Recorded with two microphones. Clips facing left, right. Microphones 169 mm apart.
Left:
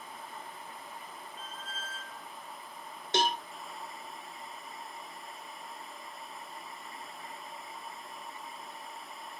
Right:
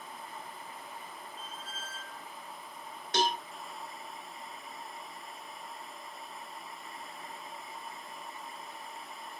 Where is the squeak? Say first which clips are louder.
Left 2 dB; 10° right (ahead or behind), 0.6 m.